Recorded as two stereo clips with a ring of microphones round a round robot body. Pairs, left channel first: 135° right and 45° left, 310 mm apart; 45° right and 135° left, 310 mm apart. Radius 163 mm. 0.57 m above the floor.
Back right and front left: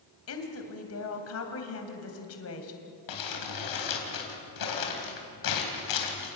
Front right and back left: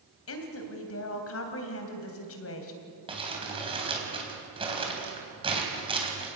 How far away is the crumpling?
About 3.5 m.